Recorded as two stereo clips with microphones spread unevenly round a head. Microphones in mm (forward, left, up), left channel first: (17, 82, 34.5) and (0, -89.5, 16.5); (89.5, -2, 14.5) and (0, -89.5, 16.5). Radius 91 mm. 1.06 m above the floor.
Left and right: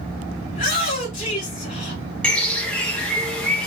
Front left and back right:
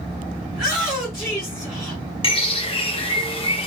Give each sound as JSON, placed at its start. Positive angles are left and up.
{"t": 0.5, "sound": "a shout", "azimuth_deg": 135, "distance_m": 2.5}
{"t": 2.2, "sound": "a bird", "azimuth_deg": 0, "distance_m": 1.0}